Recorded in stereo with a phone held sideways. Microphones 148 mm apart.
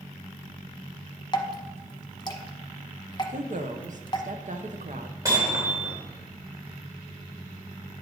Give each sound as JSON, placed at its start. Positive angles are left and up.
{"t": 1.3, "sound": "dripping", "side_deg": 30, "distance_m": 0.8}
{"t": 3.3, "sound": "a woman speaking", "side_deg": -60, "distance_m": 0.9}
{"t": 5.2, "sound": "hammering", "side_deg": -25, "distance_m": 4.0}